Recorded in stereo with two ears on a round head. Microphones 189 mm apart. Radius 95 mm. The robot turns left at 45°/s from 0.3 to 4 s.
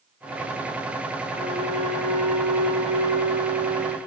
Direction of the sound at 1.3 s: 40° right.